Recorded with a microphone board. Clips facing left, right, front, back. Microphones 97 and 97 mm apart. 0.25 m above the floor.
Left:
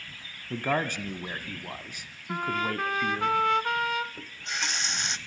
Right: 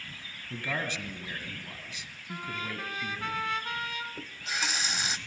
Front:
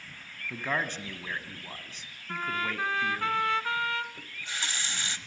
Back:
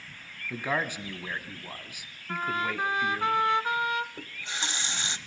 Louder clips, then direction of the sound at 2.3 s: Left 8 dB, back 3 dB; 110° left.